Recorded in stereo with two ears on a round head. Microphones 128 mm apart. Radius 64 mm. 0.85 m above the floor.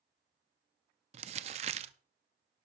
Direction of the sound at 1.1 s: 45° right (ahead or behind).